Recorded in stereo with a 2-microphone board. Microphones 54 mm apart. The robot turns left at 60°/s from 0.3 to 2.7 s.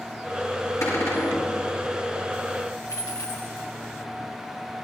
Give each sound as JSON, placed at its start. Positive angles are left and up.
{"t": 0.8, "sound": "a cupboard door", "azimuth_deg": 95, "distance_m": 7.0}
{"t": 2.9, "sound": "a dropped coin", "side_deg": 75, "distance_m": 3.0}